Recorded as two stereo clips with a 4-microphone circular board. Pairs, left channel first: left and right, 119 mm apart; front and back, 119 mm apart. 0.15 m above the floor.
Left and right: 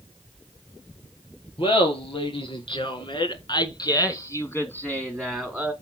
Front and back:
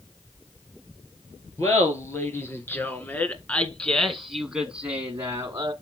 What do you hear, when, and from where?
1.6 s laughter: 60° left, 3 m; by 5.7 s 170° right, 1.5 m